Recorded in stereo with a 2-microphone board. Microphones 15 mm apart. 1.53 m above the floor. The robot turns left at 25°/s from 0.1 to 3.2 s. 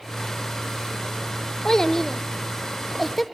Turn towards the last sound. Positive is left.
turn(degrees=5)  # may be behind; listen again after turning